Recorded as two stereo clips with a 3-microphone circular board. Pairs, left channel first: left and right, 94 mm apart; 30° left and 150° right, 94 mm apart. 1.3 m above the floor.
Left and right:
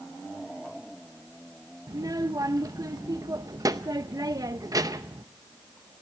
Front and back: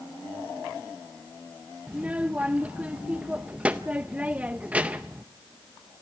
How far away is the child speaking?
About 0.6 m.